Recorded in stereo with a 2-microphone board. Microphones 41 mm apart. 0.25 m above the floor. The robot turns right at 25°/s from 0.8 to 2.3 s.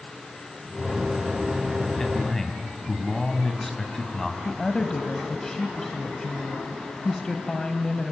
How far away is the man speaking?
About 2 m.